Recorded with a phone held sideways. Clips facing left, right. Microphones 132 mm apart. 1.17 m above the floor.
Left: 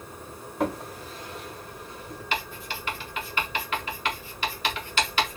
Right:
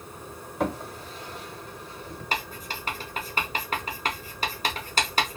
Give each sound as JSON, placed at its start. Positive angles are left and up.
{"t": 0.6, "sound": "a drawer", "side_deg": 0, "distance_m": 1.0}
{"t": 2.3, "sound": "writing", "side_deg": -40, "distance_m": 0.8}